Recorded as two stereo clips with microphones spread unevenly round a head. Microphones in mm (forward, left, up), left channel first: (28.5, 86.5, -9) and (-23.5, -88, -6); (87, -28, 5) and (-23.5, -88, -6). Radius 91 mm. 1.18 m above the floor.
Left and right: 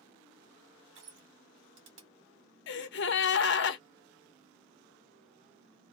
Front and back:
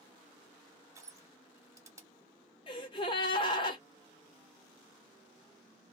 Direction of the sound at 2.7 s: 90° left.